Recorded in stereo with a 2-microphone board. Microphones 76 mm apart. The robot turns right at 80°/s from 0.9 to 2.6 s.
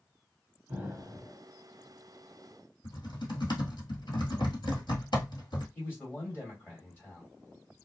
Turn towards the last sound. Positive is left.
turn(degrees=25)  # may be behind; listen again after turning